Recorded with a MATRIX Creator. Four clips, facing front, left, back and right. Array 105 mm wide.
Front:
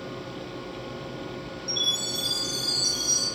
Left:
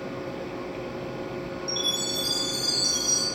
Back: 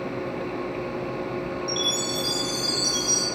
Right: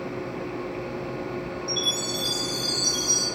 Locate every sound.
1.7 s a chime: 35° right, 1.4 m